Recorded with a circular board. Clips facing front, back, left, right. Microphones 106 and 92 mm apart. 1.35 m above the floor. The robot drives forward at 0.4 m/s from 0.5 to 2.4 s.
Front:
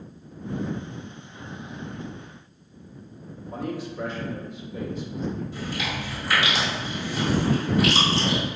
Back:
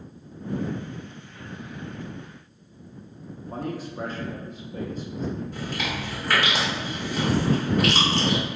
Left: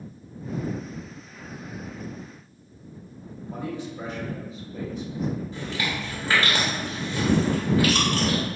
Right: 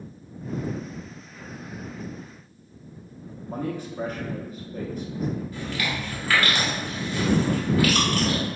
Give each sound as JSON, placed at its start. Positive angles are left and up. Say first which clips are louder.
{"t": 3.4, "sound": "a man speaking", "louder": "front 1 dB, right 2 dB", "azimuth_deg": -135, "distance_m": 1.0}
{"t": 5.5, "sound": "chewing", "louder": "even, even", "azimuth_deg": 150, "distance_m": 1.5}